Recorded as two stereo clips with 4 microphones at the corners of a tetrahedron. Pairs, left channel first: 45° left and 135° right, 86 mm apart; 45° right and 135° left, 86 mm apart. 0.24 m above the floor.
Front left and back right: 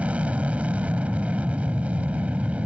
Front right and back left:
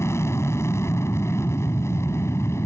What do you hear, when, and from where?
0.0 s an aircraft: 70° right